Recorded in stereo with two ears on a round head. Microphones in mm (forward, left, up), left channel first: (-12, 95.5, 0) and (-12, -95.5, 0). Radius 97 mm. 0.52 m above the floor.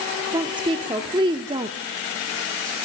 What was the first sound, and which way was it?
A woman speaking, 20° right (ahead or behind).